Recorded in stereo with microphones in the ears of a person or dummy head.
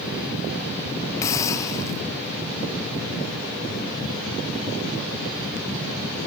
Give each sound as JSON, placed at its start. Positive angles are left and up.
{"t": 1.2, "sound": "a hiss", "side_deg": 15}